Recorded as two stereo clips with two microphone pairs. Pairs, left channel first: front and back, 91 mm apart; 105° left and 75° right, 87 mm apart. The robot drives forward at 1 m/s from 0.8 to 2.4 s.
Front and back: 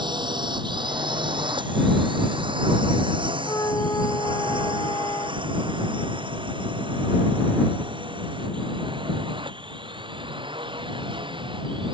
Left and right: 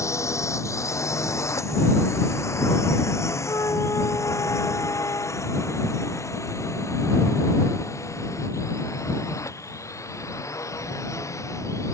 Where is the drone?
155° left; by 12.0 s 160° left.